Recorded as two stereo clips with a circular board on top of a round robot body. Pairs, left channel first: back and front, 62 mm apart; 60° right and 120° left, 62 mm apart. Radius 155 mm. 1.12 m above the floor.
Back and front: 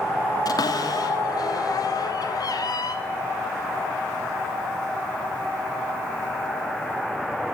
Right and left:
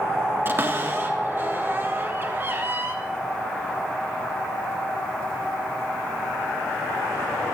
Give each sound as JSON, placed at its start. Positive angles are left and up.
{"t": 0.5, "sound": "a cupboard door", "azimuth_deg": 175, "distance_m": 3.0}